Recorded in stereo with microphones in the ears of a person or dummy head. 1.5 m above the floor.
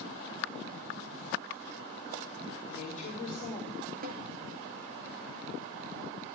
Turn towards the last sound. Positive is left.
turn(degrees=-45)  # may be behind; listen again after turning